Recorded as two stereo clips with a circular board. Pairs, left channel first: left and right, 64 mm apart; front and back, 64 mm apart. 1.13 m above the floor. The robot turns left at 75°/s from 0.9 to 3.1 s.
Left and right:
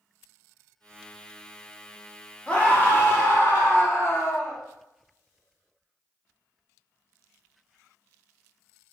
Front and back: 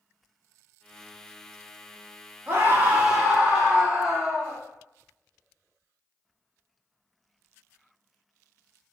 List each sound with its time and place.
2.5 s a scream: 155° left, 0.9 m; by 4.6 s 105° left, 0.9 m